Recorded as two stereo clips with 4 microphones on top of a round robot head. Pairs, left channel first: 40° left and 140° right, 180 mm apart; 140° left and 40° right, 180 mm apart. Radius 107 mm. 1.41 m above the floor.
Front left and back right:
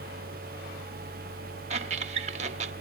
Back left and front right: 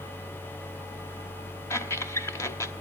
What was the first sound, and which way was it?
A squeak, 155° right.